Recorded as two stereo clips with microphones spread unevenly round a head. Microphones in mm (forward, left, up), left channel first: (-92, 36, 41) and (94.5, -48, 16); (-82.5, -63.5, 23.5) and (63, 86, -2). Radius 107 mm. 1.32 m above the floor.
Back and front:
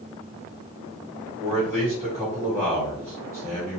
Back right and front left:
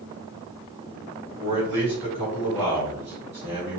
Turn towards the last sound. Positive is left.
turn(degrees=55)